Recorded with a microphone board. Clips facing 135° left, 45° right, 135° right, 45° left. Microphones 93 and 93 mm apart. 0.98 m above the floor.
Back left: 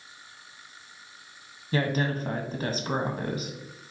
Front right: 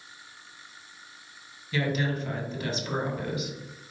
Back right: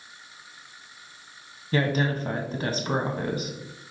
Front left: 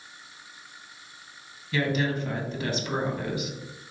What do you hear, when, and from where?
1.7 s a woman speaking: straight behind, 0.9 m